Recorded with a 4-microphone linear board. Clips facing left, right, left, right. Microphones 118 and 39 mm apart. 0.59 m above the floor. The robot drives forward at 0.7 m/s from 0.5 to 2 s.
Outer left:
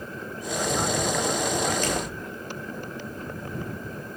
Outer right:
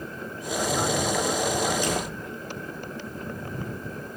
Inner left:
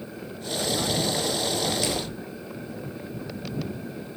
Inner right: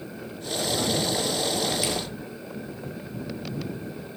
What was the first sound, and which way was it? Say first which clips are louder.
A door slam: even, even; 15° right (ahead or behind).